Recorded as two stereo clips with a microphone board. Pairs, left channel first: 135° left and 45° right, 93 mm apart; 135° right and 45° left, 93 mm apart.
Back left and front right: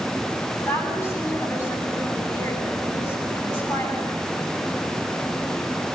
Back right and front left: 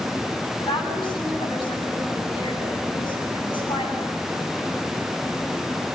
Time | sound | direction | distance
0.6 | a woman speaking | 170° right | 9 m